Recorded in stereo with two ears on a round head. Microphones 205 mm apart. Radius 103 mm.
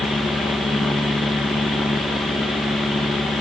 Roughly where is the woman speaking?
I don't hear a woman speaking.